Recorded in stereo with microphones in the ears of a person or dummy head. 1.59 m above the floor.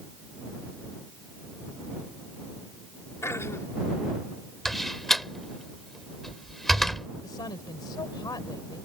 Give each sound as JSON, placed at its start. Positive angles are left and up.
{"t": 3.2, "sound": "throat clearing", "side_deg": 15}
{"t": 4.7, "sound": "a door slam", "side_deg": 0}
{"t": 7.2, "sound": "a woman speaking", "side_deg": 25}